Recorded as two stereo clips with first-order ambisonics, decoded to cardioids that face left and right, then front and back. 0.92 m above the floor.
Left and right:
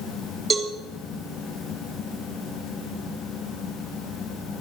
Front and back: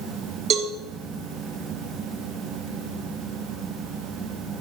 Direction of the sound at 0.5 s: 155° right.